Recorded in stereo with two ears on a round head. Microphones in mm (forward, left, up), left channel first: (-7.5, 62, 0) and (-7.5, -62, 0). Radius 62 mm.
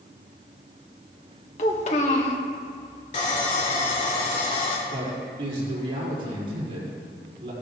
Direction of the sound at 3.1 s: 45° left (ahead or behind).